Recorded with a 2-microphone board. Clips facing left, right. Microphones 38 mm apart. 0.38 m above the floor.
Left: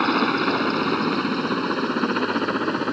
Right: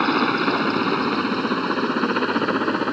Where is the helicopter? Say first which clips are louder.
Right 1 dB; 5° right (ahead or behind); by 2.9 s 10° right (ahead or behind).